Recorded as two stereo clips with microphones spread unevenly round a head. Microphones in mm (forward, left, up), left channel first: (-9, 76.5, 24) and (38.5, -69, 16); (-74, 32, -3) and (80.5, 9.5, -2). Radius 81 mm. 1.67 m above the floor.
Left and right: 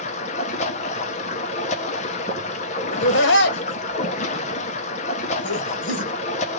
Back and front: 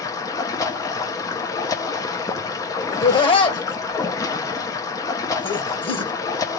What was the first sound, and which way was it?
Running water, 110° left.